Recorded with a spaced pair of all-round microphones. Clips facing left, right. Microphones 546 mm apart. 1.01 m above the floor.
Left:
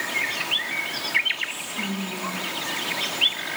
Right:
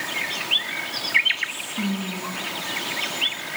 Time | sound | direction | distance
1.4 | whispering | 35° right (ahead or behind) | 1.1 m